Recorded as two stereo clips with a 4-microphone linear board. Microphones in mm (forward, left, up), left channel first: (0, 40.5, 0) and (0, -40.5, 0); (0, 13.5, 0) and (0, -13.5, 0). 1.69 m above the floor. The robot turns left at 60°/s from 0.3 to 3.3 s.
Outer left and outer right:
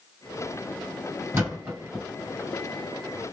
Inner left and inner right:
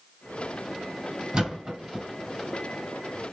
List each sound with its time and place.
1.3 s a thud: 30° right (ahead or behind), 2.5 m; by 2.0 s centre (ahead or behind), 2.5 m